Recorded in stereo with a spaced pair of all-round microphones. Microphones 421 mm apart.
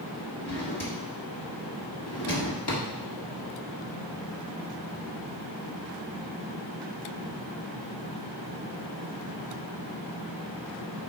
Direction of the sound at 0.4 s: 65° left (ahead or behind).